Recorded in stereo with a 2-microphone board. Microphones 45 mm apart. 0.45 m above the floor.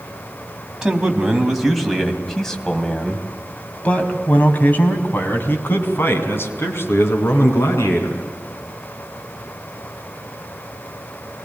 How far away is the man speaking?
About 3.5 m.